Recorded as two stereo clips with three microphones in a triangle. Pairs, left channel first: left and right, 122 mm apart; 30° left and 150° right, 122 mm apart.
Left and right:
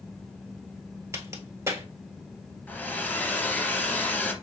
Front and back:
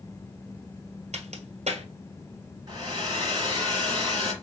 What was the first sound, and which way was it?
A crack, 155° right.